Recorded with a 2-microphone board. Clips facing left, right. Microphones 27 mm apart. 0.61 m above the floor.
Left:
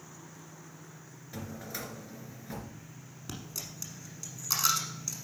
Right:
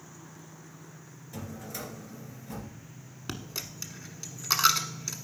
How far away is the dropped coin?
About 1.0 m.